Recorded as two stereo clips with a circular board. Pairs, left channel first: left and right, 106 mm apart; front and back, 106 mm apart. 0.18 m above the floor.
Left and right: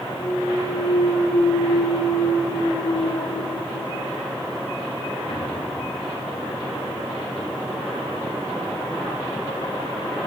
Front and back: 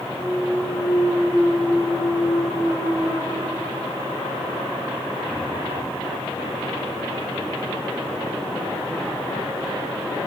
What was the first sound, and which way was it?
A clunk, 80° left.